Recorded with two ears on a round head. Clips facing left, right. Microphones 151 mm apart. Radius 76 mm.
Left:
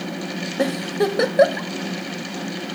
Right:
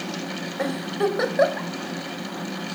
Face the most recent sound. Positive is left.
turn(degrees=35)  # may be behind; listen again after turning